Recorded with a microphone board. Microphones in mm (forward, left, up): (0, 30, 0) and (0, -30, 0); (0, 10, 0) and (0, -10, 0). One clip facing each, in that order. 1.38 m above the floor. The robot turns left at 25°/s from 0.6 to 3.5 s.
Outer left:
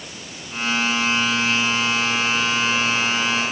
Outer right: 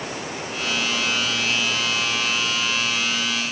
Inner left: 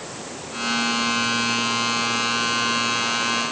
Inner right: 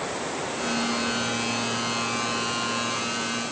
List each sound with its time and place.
0.0 s running water: 130° right; by 3.5 s 160° left